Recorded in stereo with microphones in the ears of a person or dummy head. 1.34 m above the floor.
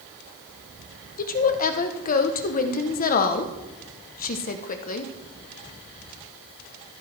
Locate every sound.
1.2 s a woman speaking: 45° left (ahead or behind), 0.8 m